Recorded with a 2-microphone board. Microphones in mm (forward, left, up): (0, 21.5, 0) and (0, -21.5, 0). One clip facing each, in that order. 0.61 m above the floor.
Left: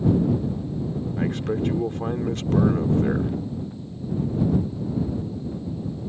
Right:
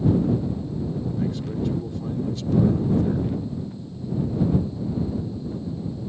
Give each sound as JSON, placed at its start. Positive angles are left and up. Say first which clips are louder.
{"t": 1.2, "sound": "a man speaking", "louder": "left 5 dB", "side_deg": 55}